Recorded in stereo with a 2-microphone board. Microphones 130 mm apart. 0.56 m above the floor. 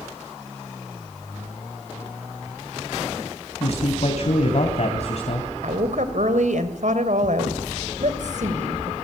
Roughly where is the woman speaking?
Right.